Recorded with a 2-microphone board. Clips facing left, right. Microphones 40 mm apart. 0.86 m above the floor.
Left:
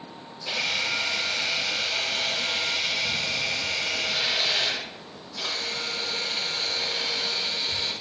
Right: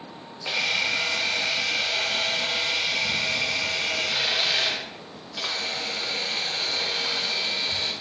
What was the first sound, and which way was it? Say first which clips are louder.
A camera shutter: right 2 dB; 65° right (ahead or behind).